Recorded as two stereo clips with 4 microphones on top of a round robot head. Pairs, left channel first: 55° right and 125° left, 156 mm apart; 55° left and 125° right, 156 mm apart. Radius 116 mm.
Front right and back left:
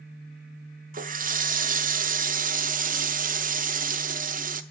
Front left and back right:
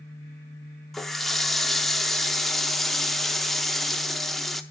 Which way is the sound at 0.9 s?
145° left.